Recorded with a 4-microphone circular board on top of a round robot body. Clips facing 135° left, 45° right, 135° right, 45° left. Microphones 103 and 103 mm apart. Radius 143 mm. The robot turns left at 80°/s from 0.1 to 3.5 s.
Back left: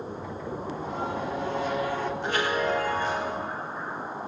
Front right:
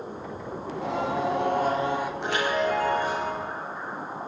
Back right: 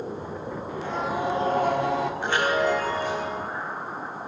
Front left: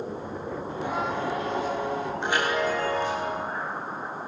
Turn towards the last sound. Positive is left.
turn(degrees=-125)